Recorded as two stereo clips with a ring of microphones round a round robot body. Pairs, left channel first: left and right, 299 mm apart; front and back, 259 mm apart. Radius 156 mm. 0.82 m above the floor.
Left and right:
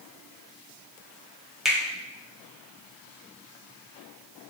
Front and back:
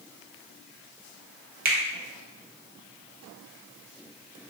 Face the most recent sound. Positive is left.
turn(degrees=180)